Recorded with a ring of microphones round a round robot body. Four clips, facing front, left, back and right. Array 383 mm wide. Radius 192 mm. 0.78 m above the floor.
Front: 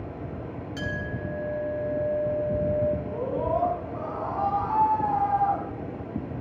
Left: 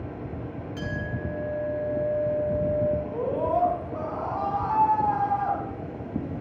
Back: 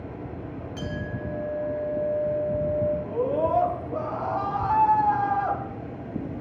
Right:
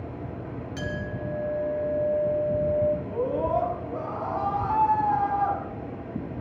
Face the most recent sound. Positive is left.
turn(degrees=-175)